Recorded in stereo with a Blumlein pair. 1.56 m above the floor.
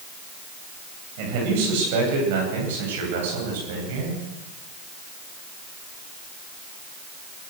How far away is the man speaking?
About 9 m.